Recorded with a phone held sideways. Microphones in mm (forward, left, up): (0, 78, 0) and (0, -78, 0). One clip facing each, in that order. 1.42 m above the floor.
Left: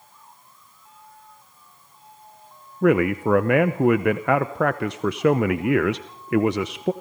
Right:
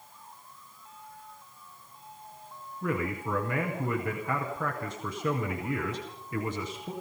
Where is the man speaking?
75° left (ahead or behind), 0.8 m.